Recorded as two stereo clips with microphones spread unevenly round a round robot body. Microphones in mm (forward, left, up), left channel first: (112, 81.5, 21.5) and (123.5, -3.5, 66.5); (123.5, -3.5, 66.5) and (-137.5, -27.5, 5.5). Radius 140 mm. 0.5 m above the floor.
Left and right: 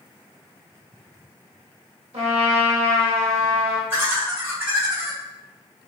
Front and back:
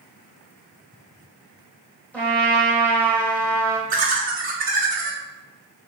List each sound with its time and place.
2.1 s a trumpet: 80° right, 0.7 m
3.9 s laughter: 170° right, 1.1 m